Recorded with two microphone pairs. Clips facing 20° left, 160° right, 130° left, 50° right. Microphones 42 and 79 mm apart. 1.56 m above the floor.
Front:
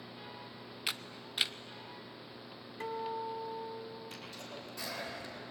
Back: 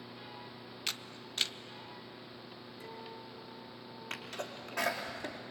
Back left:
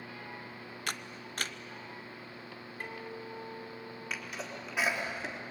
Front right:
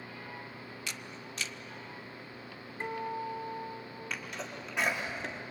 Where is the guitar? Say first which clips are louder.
Front 12 dB, front right 8 dB; 15° left, 2.5 m.